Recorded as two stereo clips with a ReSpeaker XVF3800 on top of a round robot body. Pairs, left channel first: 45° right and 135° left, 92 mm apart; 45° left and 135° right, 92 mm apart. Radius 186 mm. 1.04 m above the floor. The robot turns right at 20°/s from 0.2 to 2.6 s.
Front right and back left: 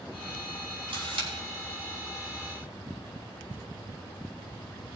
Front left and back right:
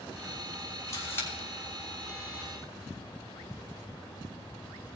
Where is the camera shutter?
105° left, 3 m; by 1.3 s 110° left, 3 m.